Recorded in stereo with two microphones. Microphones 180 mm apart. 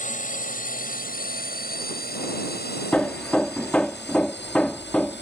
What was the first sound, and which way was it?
A drone, 45° left (ahead or behind).